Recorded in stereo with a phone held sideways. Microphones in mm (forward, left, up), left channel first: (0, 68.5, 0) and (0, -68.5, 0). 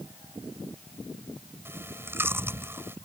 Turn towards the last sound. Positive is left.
turn(degrees=-15)  # may be behind; listen again after turning